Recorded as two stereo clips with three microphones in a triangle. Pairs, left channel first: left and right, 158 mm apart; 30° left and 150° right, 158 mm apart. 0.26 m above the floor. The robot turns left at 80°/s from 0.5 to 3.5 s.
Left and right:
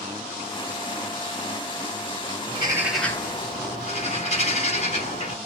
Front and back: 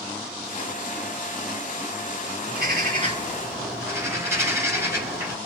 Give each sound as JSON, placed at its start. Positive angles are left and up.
{"t": 2.5, "sound": "a bird", "azimuth_deg": -140, "distance_m": 1.1}